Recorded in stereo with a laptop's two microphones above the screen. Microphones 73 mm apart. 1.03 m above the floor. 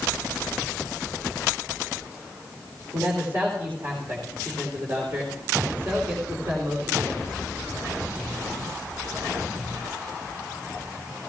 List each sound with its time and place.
2.9 s a man speaking: 40° right (ahead or behind), 3 m